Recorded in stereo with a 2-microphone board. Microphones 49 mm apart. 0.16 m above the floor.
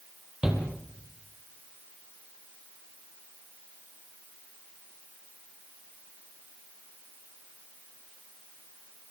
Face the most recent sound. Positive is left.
turn(degrees=-20)  # may be behind; listen again after turning